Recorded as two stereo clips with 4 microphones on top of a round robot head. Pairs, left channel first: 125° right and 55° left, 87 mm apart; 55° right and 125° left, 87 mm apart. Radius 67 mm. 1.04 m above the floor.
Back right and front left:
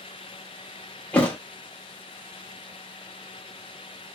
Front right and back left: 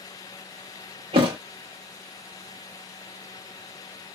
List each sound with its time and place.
1.1 s a thud: 160° left, 0.7 m